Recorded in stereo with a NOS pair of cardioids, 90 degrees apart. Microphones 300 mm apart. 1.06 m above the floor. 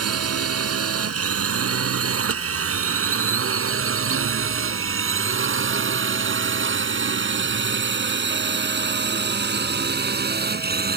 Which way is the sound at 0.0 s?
55° right.